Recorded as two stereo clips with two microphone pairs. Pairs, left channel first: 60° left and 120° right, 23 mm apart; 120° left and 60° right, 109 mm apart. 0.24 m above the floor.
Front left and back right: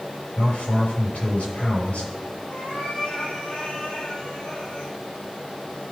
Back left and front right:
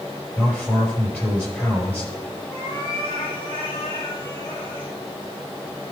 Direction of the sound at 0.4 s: 45° left.